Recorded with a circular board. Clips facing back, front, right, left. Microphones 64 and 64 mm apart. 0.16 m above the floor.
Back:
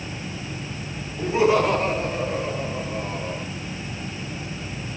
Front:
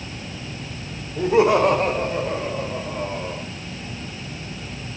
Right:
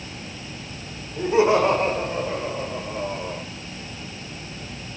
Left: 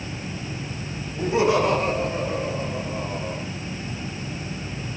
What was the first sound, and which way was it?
Laughter, 25° right.